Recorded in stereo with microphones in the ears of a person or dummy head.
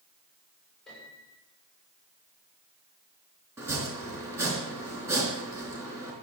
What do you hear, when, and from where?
0.9 s a piano: 5° left (ahead or behind), 8 m
3.6 s chopping: 15° right (ahead or behind), 4.5 m